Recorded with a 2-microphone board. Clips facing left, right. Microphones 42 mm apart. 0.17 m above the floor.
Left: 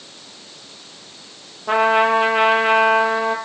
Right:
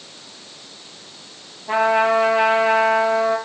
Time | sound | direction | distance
1.7 | a trumpet | 65° left (ahead or behind) | 5 m